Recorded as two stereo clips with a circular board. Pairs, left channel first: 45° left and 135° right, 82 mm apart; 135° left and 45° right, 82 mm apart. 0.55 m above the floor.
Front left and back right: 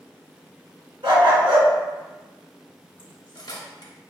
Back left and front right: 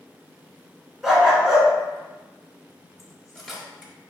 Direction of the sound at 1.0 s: 130° right.